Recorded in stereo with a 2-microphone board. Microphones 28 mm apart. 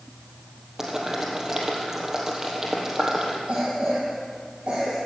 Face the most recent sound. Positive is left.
turn(degrees=-40)  # may be behind; listen again after turning